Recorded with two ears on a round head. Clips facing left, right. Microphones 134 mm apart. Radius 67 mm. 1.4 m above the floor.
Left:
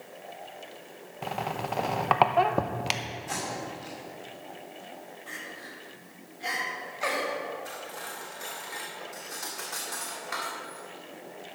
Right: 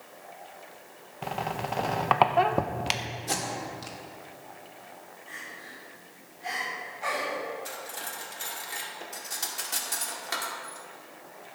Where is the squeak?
Centre (ahead or behind), 0.5 m.